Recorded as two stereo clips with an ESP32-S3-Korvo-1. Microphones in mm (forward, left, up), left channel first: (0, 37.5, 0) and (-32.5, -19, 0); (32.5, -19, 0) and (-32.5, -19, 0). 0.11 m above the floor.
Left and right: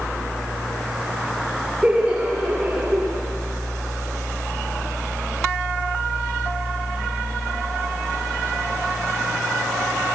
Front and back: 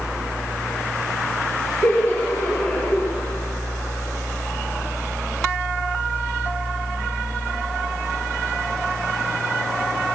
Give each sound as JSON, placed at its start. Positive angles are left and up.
{"t": 1.8, "sound": "laughter", "azimuth_deg": -55, "distance_m": 2.0}